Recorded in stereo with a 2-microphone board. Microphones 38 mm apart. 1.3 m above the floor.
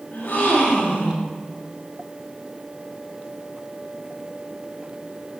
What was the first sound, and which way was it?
A gasp, 75° left (ahead or behind).